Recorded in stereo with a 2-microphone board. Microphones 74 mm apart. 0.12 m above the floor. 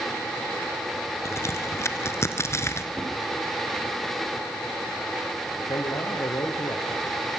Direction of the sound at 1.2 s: 40° left (ahead or behind).